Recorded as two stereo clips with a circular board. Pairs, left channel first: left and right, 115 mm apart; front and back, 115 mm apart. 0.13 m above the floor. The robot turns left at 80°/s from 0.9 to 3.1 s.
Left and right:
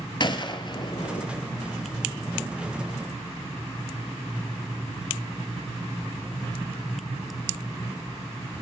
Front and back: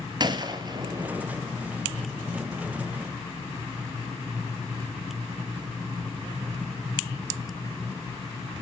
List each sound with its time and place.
0.2 s a gunshot: 135° left, 0.9 m; by 1.3 s 105° left, 0.9 m